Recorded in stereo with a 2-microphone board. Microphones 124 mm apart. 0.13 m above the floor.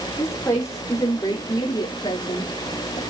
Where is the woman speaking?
20° left (ahead or behind), 6.5 m; by 3.0 s 50° left (ahead or behind), 5 m.